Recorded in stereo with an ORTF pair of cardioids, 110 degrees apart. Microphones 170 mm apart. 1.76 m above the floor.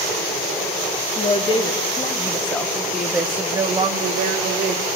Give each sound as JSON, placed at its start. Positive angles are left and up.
{"t": 1.1, "sound": "a woman speaking", "azimuth_deg": 30, "distance_m": 3.0}